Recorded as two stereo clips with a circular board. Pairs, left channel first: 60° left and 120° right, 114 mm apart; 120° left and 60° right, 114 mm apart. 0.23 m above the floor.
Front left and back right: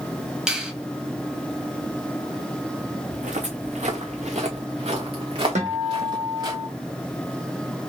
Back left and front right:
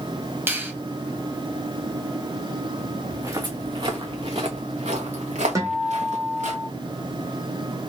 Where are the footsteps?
125° right, 1.1 m; by 6.5 s 65° right, 2 m.